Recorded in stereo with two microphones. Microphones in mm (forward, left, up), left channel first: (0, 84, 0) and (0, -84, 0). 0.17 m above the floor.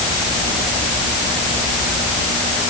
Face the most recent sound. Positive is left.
No sound to turn to.